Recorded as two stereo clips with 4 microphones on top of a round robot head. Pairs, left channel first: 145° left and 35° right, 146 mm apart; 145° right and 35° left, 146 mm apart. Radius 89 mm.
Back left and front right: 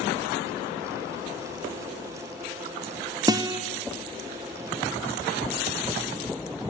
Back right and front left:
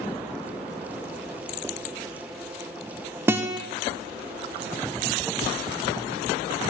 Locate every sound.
3.3 s a guitar: 15° right, 0.6 m